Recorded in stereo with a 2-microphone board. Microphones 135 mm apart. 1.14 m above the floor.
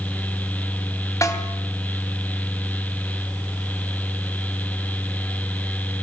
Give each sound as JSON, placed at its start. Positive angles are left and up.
{"t": 1.2, "sound": "a snare drum", "side_deg": 25, "distance_m": 3.5}